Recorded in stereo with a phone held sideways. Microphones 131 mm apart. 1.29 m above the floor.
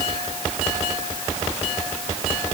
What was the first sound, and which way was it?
Only background noise.